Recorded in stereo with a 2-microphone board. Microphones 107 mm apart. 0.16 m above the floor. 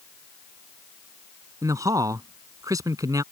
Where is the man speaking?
35° right (ahead or behind).